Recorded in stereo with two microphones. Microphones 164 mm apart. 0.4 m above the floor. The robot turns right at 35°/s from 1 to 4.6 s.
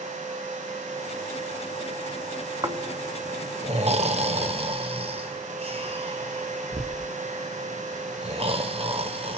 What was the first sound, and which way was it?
Snoring, 25° right (ahead or behind).